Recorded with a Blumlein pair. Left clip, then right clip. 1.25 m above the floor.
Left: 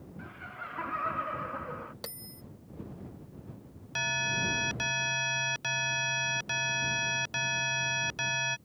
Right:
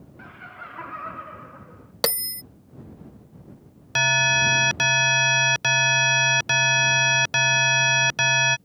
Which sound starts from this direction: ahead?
Laughter, at 0.2 s.